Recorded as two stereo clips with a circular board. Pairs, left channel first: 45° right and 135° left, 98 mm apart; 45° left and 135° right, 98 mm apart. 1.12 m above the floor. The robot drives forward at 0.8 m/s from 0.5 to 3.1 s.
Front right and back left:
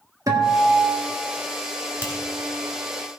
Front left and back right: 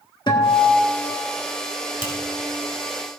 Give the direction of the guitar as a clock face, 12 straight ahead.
9 o'clock.